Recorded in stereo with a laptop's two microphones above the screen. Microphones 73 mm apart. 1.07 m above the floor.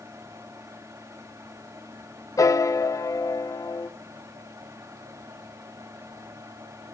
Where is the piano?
50° left (ahead or behind), 0.7 m.